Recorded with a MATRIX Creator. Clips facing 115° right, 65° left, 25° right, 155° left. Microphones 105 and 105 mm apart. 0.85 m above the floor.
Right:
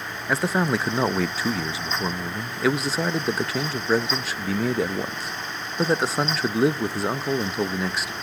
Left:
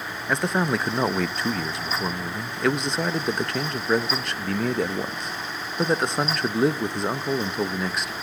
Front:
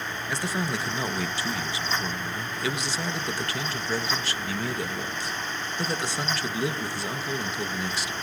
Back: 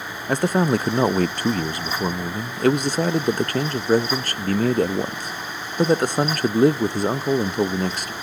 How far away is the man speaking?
About 0.5 m.